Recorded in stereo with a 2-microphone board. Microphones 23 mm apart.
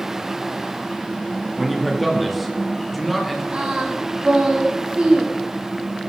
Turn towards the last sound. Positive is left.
turn(degrees=-45)  # may be behind; listen again after turning